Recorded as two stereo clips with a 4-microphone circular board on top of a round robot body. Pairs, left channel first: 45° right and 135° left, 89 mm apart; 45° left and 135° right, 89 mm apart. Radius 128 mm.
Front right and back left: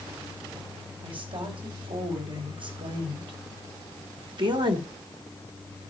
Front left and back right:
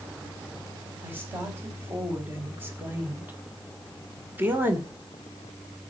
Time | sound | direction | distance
1.0 | a woman speaking | 160° left | 4 m